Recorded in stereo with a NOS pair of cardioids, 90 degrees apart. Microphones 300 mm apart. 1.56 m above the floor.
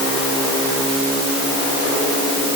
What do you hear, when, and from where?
Only background noise.